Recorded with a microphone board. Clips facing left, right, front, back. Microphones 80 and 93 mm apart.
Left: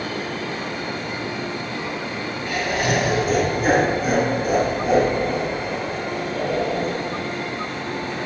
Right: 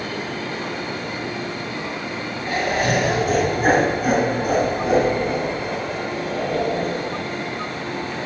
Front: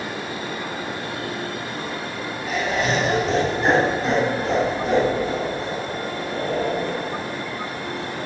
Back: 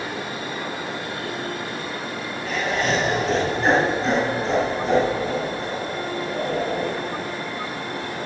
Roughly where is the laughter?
Right.